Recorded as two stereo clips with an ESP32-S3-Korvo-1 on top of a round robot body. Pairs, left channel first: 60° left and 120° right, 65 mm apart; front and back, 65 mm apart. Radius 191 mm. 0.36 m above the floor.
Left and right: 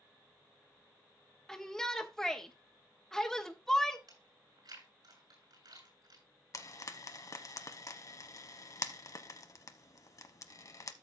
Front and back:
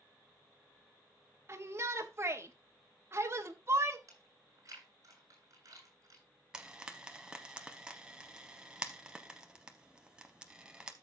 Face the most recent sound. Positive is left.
turn(degrees=100)